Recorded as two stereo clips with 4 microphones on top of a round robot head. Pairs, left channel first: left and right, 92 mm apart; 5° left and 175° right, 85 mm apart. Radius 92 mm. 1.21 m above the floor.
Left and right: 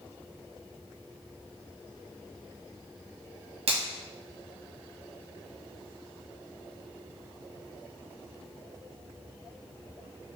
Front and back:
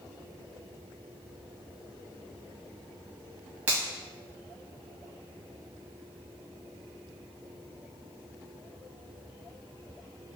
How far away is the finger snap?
About 1.6 m.